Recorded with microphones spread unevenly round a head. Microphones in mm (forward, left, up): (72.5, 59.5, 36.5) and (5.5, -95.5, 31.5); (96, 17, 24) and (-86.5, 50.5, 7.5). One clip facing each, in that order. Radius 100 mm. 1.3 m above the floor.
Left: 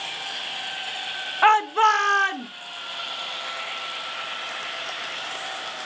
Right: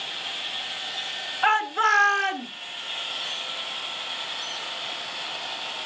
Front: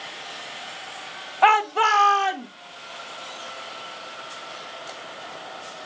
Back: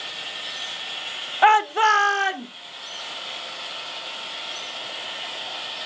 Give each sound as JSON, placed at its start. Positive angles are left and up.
{"t": 1.4, "sound": "a shout", "azimuth_deg": 90, "distance_m": 0.8}